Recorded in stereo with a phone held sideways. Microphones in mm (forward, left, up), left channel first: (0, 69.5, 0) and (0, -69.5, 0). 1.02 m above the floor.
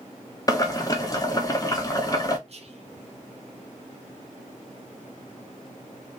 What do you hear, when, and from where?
0.5 s boiling: 25° left (ahead or behind), 0.7 m
2.5 s whispering: 50° right (ahead or behind), 0.9 m